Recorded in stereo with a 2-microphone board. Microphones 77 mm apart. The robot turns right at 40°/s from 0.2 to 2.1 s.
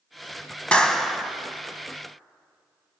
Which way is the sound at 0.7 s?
15° left (ahead or behind).